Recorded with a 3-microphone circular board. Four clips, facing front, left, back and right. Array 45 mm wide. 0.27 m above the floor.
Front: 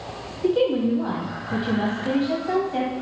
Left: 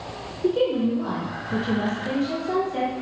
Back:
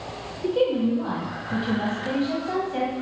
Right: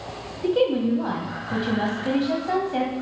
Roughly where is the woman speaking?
Right.